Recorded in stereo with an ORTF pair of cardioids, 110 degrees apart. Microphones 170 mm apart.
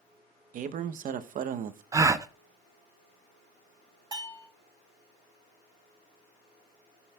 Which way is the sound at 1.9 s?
20° right.